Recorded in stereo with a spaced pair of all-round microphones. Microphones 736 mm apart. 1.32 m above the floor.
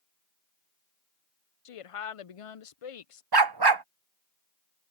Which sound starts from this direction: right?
A dog barking, at 3.3 s.